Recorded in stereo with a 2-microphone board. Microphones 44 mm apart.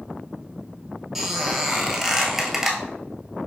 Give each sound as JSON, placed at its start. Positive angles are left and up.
{"t": 1.1, "sound": "a squeak", "side_deg": -5, "distance_m": 0.8}